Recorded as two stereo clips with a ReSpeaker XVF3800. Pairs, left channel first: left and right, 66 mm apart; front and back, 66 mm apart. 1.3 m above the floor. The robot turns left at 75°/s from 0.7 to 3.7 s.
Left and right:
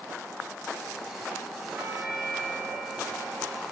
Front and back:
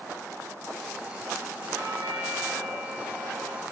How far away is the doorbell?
About 1.5 m.